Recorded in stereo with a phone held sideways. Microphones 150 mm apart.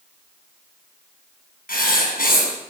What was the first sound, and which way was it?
Writing, 75° left (ahead or behind).